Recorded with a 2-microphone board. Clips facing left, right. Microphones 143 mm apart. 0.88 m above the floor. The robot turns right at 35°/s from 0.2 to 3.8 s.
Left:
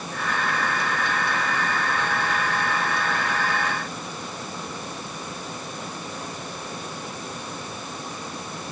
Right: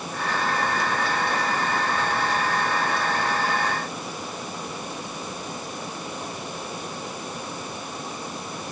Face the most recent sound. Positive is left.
No sound to turn to.